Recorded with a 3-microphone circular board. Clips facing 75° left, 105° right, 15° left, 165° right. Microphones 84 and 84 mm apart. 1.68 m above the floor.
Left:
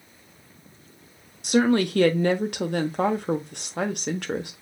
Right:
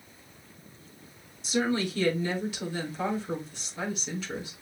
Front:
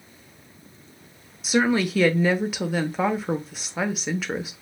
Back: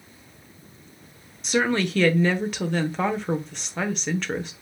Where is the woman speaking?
100° left, 0.8 m.